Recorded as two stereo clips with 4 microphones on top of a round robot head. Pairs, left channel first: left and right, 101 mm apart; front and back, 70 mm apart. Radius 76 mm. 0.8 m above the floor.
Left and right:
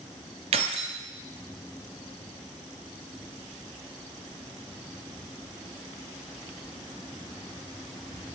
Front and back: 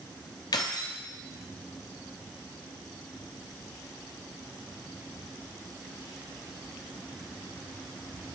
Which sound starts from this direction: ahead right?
Keys jangling, at 0.5 s.